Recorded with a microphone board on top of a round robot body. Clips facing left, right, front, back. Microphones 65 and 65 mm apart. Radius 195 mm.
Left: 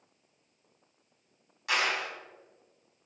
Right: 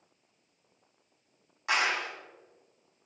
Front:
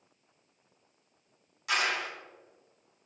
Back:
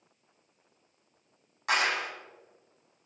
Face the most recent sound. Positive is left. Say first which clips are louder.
# right 1 dB, back 2 dB
turn(degrees=-145)